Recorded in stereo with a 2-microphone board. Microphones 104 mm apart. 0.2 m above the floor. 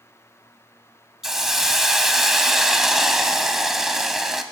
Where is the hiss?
5° right (ahead or behind), 0.7 m.